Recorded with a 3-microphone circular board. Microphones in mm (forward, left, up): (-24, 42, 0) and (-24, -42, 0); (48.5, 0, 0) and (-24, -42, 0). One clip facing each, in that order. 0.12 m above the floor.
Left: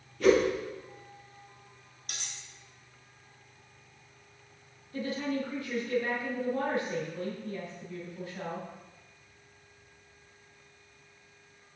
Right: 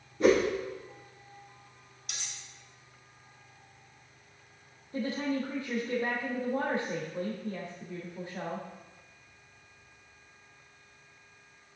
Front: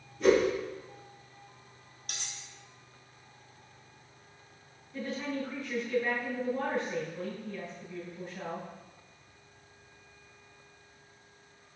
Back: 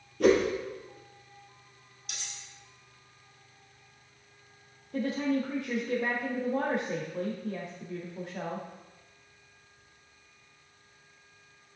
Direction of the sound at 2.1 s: 55° left.